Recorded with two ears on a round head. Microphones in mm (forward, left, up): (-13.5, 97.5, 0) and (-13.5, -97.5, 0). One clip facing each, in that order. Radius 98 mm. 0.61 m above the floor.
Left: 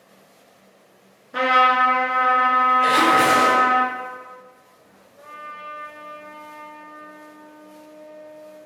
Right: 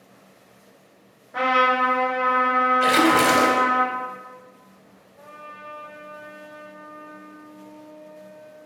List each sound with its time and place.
1.3 s a trumpet: 60° left (ahead or behind), 1.5 m
2.8 s a splash: 50° right (ahead or behind), 0.6 m
5.2 s a trumpet: 55° left (ahead or behind), 1.2 m